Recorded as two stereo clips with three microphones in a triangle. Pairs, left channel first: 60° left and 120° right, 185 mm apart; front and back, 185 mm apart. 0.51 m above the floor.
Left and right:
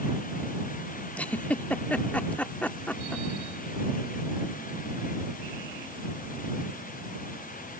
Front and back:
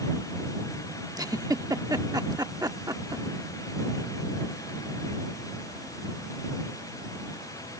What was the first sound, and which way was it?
A giggle, 135° left.